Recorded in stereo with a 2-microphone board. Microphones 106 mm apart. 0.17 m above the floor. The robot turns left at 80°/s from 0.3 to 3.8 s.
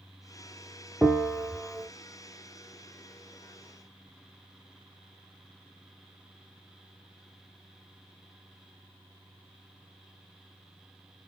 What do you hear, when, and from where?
1.0 s a bell: 10° right (ahead or behind), 1.0 m; by 1.9 s 10° left (ahead or behind), 1.0 m